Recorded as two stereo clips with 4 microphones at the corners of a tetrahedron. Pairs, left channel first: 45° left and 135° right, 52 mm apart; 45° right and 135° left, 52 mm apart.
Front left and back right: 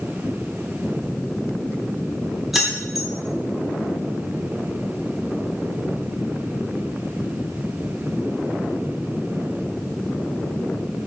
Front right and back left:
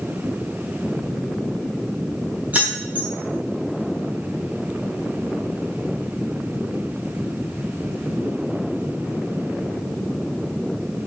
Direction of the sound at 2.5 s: 140° left.